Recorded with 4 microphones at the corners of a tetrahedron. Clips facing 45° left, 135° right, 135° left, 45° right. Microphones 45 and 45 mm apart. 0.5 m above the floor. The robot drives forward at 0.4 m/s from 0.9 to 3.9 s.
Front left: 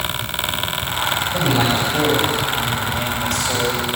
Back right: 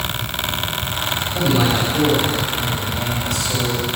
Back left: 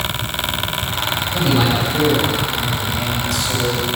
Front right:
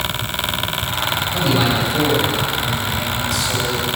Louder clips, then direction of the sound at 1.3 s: Back right 2 dB, back left 1 dB; 35° left.